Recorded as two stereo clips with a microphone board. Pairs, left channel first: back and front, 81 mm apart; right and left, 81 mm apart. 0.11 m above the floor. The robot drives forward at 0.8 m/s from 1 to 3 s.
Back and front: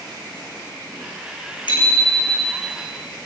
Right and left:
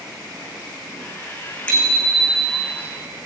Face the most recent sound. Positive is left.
turn(degrees=-170)